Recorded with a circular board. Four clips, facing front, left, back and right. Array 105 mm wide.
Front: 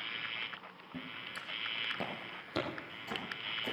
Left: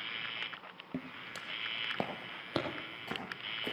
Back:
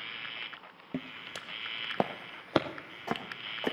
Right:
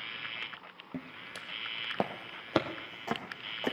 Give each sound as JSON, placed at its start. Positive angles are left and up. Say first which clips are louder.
{"t": 0.9, "sound": "footsteps", "louder": "even, back 6 dB", "azimuth_deg": 175, "distance_m": 0.8}